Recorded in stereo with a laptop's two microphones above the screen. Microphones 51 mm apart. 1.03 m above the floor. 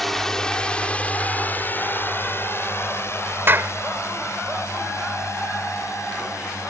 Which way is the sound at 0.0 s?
Centre (ahead or behind).